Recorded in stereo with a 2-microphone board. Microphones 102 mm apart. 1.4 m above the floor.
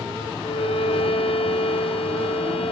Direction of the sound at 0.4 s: 65° left (ahead or behind).